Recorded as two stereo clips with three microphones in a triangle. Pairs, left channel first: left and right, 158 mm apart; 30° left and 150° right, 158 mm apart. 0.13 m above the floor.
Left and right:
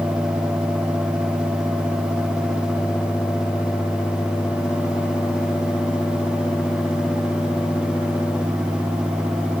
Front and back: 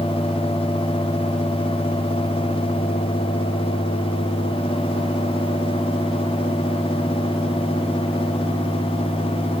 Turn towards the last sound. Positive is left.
No sound to turn to.